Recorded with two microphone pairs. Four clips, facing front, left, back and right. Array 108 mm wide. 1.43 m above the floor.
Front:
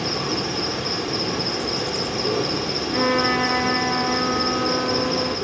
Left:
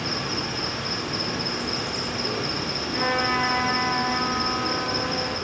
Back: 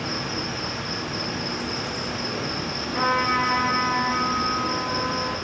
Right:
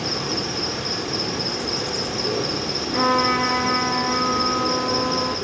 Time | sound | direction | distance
0.0 | an insect | 40° right | 3 m
2.9 | a trumpet | 60° right | 8 m